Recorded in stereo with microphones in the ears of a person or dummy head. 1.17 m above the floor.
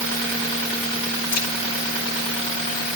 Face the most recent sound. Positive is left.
turn(degrees=85)